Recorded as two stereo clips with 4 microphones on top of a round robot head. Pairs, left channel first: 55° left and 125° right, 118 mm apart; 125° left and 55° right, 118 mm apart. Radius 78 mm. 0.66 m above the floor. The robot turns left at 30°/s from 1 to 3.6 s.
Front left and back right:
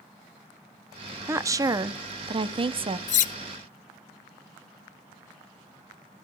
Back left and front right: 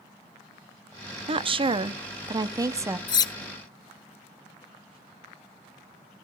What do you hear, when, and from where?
1.3 s a woman speaking: 65° right, 0.8 m; by 3.0 s 115° right, 0.8 m
3.1 s cutlery clinking: 70° left, 0.5 m; by 3.3 s 65° left, 0.5 m